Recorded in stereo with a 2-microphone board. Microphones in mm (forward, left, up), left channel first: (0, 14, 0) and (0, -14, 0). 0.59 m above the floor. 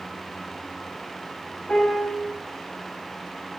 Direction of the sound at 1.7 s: 35° left (ahead or behind).